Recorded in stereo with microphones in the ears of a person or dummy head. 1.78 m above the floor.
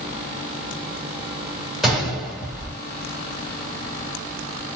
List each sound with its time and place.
1.8 s a gunshot: 5° right (ahead or behind), 3 m